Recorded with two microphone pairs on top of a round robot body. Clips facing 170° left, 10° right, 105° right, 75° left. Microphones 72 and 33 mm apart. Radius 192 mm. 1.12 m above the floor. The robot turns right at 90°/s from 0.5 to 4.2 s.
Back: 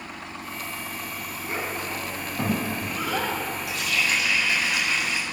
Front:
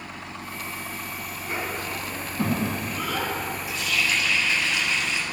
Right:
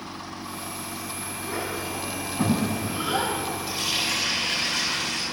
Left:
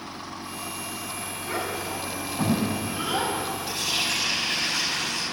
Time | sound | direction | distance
1.4 | a child speaking | 55° left | 5.5 m
3.7 | a running tap | 160° right | 3.5 m